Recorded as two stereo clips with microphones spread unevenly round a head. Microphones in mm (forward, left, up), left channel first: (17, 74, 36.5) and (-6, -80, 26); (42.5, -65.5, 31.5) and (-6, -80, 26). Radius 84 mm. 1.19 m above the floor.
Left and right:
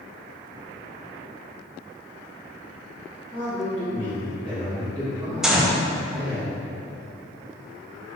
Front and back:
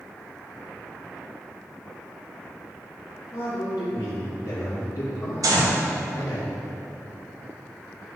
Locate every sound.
3.3 s a man speaking: 5° right, 1.8 m
5.4 s a gunshot: 175° left, 0.7 m